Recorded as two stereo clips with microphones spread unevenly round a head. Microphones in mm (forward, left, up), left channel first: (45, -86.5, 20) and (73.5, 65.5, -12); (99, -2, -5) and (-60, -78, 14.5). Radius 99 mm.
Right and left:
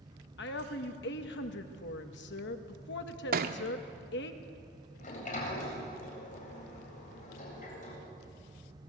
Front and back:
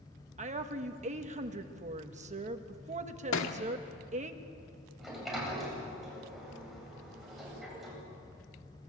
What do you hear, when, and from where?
0.4 s a woman speaking: 105° right, 1.9 m
3.3 s a thud: 55° left, 1.6 m
5.0 s a sliding door: 65° right, 8.5 m